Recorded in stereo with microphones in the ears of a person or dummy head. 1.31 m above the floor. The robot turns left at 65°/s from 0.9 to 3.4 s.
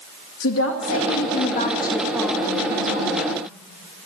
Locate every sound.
0.4 s a woman speaking: 85° left, 2.5 m; by 3.3 s 70° right, 2.5 m